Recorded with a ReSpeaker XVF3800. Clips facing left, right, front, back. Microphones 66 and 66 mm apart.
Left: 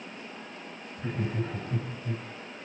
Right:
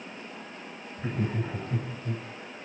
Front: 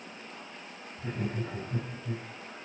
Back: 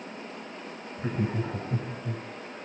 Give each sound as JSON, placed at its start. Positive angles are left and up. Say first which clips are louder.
{"t": 1.0, "sound": "laughter", "louder": "right 1 dB, back 5 dB", "azimuth_deg": -160, "distance_m": 6.5}